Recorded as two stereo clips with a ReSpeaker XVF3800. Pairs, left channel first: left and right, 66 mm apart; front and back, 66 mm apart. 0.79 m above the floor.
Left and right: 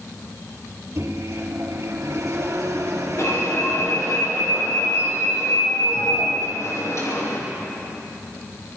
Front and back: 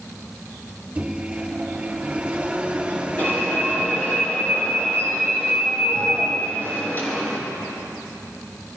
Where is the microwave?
115° right, 3.5 m.